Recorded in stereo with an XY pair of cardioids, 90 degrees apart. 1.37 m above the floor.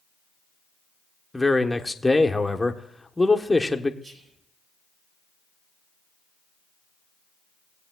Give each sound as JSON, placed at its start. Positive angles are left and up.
{"t": 1.3, "sound": "a man speaking", "azimuth_deg": 10, "distance_m": 1.0}
{"t": 4.0, "sound": "whispering", "azimuth_deg": -55, "distance_m": 2.5}